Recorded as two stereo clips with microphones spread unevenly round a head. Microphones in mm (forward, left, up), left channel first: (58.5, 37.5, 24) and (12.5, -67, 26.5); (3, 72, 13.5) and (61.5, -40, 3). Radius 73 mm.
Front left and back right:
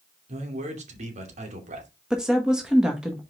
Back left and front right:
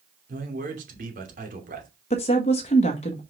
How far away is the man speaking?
About 2.5 m.